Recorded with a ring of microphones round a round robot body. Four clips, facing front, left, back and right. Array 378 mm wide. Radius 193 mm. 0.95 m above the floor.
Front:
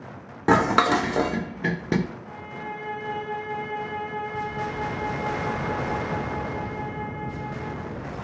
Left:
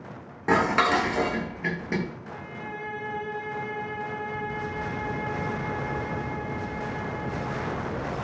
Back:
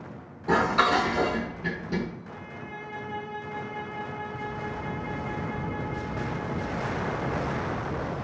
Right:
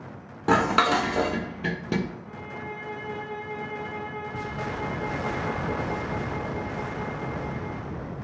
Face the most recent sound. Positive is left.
turn(degrees=-5)